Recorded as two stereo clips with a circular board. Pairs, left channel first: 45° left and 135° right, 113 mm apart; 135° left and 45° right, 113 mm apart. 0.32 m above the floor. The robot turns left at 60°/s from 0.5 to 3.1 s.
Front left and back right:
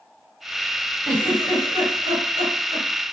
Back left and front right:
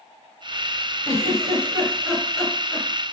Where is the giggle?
55° right, 4 m; by 2.9 s 160° right, 4 m.